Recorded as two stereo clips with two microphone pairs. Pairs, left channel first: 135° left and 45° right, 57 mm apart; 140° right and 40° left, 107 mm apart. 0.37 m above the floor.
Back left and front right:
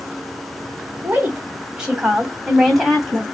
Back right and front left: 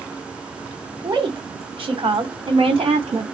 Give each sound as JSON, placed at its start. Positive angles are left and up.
{"t": 1.0, "sound": "a woman speaking", "azimuth_deg": 10, "distance_m": 2.0}